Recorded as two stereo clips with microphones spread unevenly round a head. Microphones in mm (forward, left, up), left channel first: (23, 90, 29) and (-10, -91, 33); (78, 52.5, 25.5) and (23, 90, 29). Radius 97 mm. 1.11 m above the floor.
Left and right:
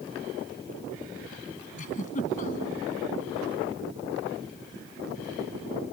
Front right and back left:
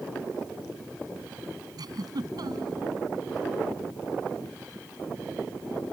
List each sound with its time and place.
1.8 s a giggle: 130° left